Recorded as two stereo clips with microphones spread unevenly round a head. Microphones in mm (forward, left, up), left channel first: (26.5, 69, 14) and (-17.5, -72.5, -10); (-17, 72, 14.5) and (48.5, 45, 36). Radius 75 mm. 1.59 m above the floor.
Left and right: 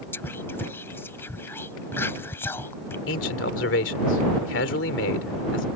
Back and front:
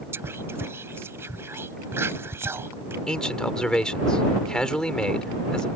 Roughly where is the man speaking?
Left.